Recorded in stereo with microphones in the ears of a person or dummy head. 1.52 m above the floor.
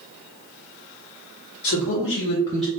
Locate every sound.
1.6 s a man speaking: 80° left, 1.0 m; by 2.7 s 10° right (ahead or behind), 0.6 m